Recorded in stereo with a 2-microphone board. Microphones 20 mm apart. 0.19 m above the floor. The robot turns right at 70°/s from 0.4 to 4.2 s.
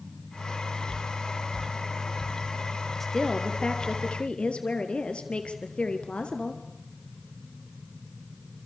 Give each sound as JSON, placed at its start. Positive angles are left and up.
{"t": 3.0, "sound": "a woman speaking", "azimuth_deg": 10, "distance_m": 4.0}